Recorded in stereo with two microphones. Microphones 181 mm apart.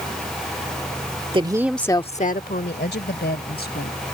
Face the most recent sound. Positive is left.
turn(degrees=60)  # may be behind; listen again after turning